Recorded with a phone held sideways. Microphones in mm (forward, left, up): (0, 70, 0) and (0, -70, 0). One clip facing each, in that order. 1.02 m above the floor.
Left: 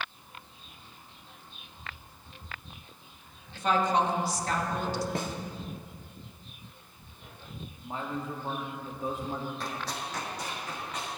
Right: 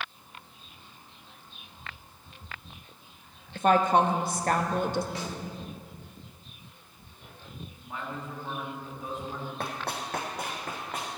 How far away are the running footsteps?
About 2 m.